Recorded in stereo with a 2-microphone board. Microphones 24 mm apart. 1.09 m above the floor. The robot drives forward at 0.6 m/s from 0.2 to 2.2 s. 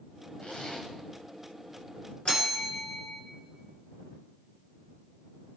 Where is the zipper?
70° left (ahead or behind), 2 m.